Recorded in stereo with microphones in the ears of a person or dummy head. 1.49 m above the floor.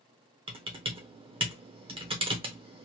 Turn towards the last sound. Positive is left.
turn(degrees=-20)  # may be behind; listen again after turning